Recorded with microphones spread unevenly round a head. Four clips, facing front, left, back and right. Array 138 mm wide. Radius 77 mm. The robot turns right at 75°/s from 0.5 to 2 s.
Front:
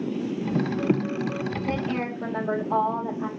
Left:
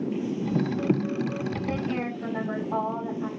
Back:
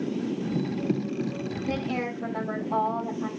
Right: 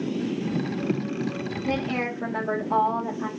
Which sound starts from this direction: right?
A woman speaking, at 1.6 s.